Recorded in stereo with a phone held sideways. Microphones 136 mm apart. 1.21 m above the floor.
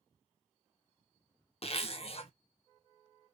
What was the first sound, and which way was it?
A zipper, 45° left (ahead or behind).